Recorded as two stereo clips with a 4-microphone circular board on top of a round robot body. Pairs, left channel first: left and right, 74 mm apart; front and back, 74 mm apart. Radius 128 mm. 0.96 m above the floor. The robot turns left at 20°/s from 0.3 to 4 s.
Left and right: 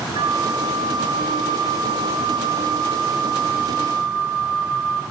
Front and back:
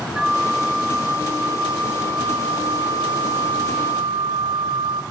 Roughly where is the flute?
Right.